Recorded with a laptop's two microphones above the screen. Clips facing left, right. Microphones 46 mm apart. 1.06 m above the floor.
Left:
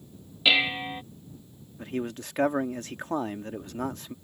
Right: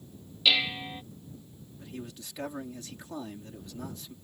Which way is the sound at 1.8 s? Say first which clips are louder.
Left 10 dB; 55° left (ahead or behind).